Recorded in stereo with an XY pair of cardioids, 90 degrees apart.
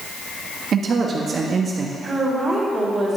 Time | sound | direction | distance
0.7 | a man speaking | 60° right | 1.6 m
2.0 | a woman speaking | 25° right | 3.5 m